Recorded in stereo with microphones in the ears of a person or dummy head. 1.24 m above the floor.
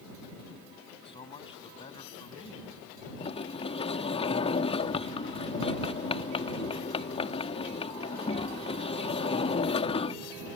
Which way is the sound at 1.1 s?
25° left (ahead or behind).